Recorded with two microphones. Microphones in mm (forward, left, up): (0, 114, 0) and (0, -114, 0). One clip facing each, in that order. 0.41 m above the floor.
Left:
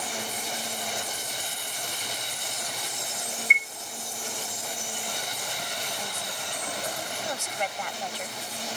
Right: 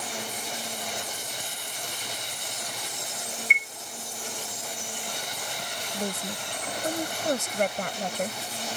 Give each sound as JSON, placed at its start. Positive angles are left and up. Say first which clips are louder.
{"t": 3.5, "sound": "a chime", "louder": "left 1 dB", "side_deg": -30}
{"t": 5.9, "sound": "a woman speaking", "louder": "right 6 dB", "side_deg": -50}